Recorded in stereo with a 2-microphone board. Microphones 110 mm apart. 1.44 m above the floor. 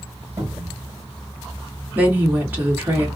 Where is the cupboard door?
30° right (ahead or behind), 2.5 m.